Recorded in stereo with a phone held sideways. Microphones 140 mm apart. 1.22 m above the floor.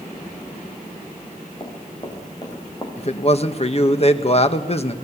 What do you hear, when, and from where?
1.6 s running footsteps: 35° left (ahead or behind), 6 m; by 2.9 s 25° left (ahead or behind), 5.5 m
3.0 s a man speaking: 45° left (ahead or behind), 1.6 m